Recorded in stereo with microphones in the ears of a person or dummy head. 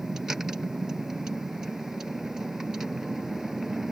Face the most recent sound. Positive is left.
turn(degrees=-5)  # may be behind; listen again after turning